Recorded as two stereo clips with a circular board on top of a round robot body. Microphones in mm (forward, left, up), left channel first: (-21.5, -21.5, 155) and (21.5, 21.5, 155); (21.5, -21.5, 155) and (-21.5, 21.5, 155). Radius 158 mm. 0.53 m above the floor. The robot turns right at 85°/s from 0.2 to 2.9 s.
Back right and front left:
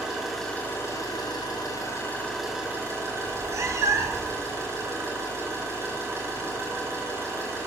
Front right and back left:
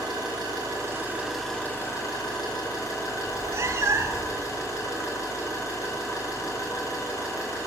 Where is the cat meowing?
85° left, 0.9 m.